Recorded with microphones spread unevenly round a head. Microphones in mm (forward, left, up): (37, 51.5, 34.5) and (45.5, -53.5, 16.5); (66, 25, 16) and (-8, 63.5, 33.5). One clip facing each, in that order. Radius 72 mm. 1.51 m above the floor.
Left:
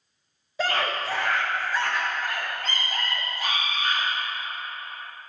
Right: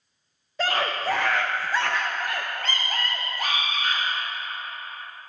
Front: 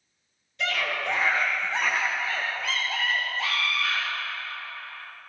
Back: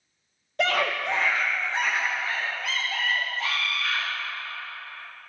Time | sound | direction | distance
0.6 | a scream | 175° left | 0.6 m